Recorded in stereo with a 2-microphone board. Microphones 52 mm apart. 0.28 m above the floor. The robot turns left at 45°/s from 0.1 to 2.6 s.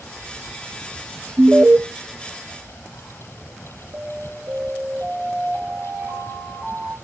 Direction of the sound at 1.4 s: 35° right (ahead or behind).